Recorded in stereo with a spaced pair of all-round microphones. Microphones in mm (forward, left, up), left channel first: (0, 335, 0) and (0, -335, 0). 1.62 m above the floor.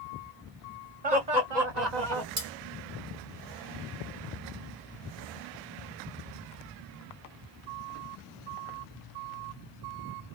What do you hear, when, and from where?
1.0 s laughter: 65° right (ahead or behind), 1.6 m; by 2.3 s 90° right, 1.1 m
2.4 s cutlery clinking: 50° right (ahead or behind), 1.5 m